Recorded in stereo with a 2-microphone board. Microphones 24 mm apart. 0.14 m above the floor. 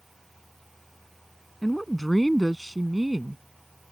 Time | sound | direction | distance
1.6 | a woman speaking | 15° left (ahead or behind) | ?